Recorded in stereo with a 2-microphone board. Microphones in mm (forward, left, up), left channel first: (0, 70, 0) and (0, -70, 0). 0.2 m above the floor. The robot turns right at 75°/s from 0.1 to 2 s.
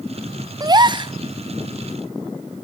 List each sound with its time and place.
0.6 s a gasp: 120° right, 0.8 m; by 1.1 s 80° right, 0.8 m